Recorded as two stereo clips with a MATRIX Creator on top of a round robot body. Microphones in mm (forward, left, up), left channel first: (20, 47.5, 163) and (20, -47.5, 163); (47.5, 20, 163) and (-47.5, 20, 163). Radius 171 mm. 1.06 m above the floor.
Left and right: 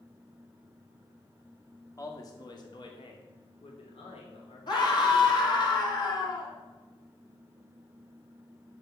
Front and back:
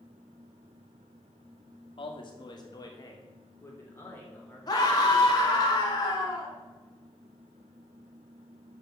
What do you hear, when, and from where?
2.0 s a man speaking: 35° left, 2 m; by 5.7 s 80° left, 4.5 m
4.7 s a scream: 50° left, 3.5 m